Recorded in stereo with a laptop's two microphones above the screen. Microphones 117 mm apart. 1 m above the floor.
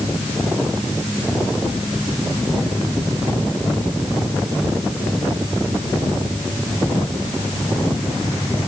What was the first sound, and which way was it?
Only background noise.